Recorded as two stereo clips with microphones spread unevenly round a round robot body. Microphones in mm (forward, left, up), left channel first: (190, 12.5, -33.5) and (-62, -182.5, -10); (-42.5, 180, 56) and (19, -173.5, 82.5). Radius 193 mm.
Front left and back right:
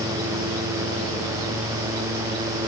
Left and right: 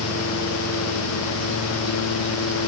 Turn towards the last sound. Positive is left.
No sound to turn to.